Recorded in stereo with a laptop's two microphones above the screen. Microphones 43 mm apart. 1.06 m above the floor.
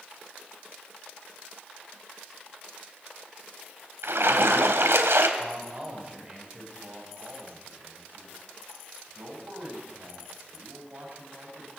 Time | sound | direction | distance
4.0 | a splash | 80° right | 3 m
5.4 | a man speaking | 30° right (ahead or behind) | 6 m
6.8 | a man speaking | 45° right (ahead or behind) | 5.5 m